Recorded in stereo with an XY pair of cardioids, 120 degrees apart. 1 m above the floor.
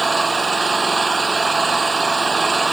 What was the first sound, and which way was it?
An engine running, 20° right.